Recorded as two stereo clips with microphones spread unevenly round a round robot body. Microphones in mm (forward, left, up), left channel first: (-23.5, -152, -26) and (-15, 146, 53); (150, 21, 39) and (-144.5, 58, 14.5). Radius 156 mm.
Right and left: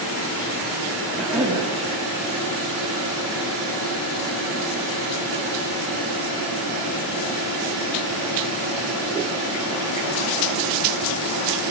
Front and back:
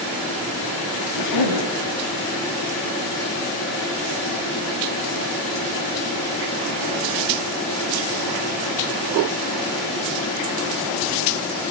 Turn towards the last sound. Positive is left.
turn(degrees=0)